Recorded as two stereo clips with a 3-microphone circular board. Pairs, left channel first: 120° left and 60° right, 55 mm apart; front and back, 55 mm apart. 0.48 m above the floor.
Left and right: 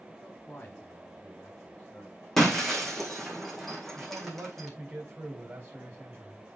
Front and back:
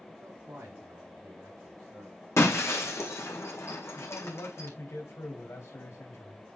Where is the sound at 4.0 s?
10° right, 3 m.